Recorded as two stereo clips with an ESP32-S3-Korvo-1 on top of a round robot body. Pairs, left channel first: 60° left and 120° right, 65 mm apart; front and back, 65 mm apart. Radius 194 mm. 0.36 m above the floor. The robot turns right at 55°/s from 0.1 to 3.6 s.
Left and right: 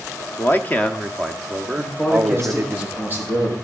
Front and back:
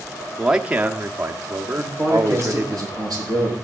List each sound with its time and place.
0.4 s a man speaking: 95° left, 1.2 m; by 2.8 s 130° right, 1.2 m
1.8 s a man speaking: 110° left, 7.5 m; by 3.5 s 155° right, 7.5 m